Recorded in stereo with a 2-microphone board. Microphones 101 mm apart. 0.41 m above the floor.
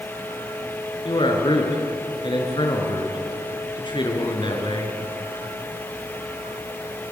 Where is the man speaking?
55° left (ahead or behind), 5.5 m.